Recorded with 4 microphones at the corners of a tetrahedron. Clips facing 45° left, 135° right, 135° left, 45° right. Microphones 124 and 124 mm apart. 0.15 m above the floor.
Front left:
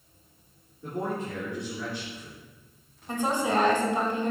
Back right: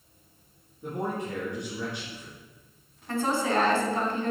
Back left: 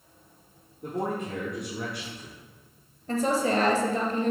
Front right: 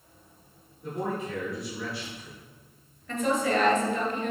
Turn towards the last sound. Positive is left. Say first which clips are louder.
# even, back left 1 dB
turn(degrees=110)